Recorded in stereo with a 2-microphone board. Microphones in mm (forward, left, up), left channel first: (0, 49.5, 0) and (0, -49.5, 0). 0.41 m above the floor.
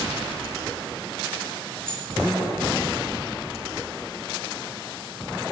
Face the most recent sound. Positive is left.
turn(degrees=15)  # may be behind; listen again after turning